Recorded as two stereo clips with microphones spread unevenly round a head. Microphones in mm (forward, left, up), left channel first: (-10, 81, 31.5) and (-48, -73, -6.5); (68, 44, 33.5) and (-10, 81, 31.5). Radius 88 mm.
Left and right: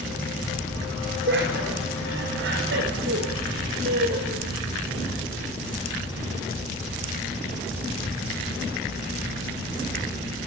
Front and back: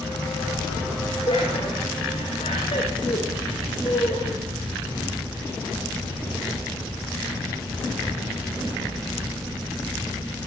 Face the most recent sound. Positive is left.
turn(degrees=-80)